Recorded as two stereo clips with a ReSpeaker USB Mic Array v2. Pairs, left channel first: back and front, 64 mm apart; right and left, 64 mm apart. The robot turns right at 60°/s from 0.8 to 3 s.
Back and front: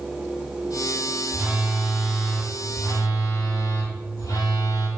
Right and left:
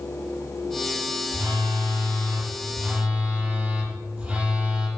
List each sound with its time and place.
1.3 s a phone buzzing: 65° left, 6 m; by 4.9 s 165° left, 6 m